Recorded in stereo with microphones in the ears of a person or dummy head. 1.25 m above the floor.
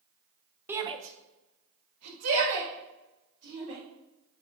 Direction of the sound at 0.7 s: 10° right (ahead or behind).